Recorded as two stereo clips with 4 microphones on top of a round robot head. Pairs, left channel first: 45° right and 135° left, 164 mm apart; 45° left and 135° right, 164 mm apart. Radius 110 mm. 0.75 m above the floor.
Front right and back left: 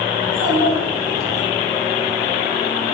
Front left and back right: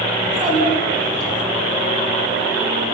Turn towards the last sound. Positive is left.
turn(degrees=170)